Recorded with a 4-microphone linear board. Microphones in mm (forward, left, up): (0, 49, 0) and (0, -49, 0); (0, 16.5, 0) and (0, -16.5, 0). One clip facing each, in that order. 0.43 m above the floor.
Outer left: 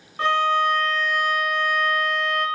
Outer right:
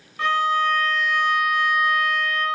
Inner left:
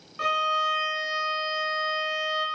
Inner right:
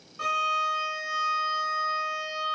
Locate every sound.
0.2 s a violin: 35° left (ahead or behind), 0.9 m